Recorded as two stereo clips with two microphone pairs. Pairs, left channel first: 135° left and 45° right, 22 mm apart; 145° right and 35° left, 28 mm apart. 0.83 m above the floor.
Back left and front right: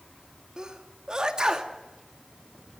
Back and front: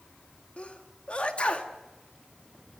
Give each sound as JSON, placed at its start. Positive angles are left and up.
{"t": 0.6, "sound": "a sneeze", "azimuth_deg": -100, "distance_m": 2.0}